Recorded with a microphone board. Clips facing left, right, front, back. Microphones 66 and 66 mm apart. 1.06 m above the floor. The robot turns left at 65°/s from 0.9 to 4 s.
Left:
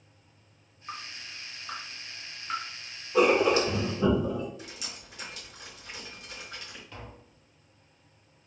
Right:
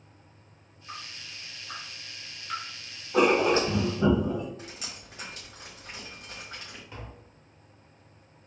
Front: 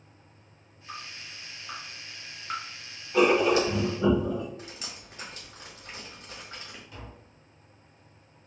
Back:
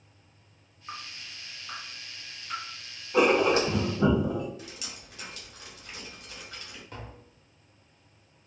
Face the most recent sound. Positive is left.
turn(degrees=-155)